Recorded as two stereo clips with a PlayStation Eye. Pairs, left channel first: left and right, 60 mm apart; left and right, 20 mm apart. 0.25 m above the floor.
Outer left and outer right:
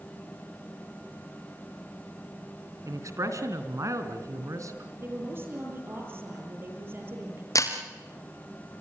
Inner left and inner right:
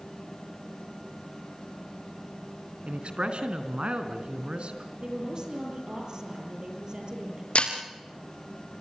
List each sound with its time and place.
2.9 s a man speaking: 60° right (ahead or behind), 3.5 m
5.0 s a woman speaking: 35° right (ahead or behind), 7 m
7.5 s breaking glass: 65° left (ahead or behind), 4 m